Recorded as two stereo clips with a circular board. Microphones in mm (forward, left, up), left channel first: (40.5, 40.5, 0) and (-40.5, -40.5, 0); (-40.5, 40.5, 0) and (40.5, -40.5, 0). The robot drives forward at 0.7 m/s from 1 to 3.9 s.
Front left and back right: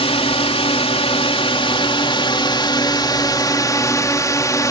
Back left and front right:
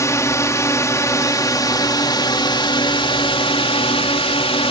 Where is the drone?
75° left; by 4.7 s 105° left.